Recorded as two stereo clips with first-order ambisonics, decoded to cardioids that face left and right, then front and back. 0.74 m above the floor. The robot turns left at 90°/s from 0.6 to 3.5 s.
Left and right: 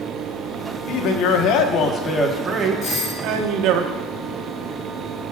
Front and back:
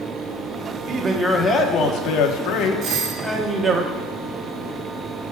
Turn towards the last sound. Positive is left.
turn(degrees=75)